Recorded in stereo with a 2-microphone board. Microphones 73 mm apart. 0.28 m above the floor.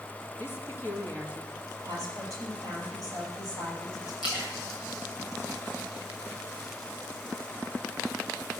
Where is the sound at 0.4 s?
30° left (ahead or behind), 2.5 m.